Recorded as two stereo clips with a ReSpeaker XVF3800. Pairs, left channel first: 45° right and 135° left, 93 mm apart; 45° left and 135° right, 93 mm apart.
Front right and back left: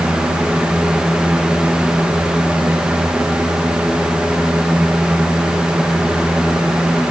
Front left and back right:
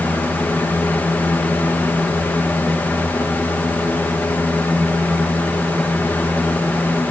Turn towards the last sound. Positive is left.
No sound to turn to.